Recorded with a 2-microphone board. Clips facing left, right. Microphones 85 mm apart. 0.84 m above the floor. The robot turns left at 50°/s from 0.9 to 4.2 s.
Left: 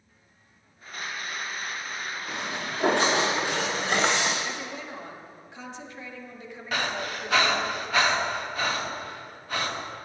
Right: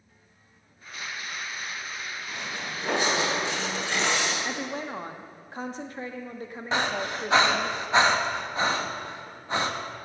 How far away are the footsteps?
About 3.5 m.